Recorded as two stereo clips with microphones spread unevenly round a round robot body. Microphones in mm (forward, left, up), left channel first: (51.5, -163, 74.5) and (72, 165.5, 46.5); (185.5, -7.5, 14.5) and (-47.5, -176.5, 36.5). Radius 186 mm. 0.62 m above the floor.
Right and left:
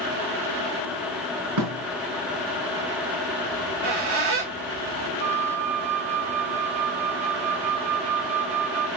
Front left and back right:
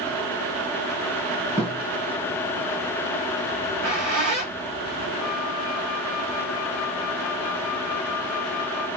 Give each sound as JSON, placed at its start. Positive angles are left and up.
{"t": 1.6, "sound": "a thud", "azimuth_deg": 135, "distance_m": 4.5}
{"t": 3.5, "sound": "a squeak", "azimuth_deg": 150, "distance_m": 4.5}
{"t": 5.2, "sound": "a flute", "azimuth_deg": 135, "distance_m": 4.5}